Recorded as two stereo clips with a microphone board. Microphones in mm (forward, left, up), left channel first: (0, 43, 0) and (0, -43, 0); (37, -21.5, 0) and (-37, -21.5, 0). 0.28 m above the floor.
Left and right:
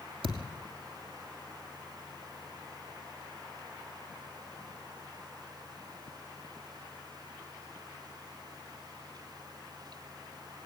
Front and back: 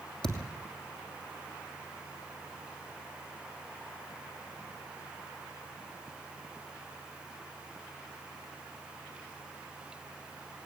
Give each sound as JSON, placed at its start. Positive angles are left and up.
{"t": 0.2, "sound": "a thud", "azimuth_deg": -85, "distance_m": 3.0}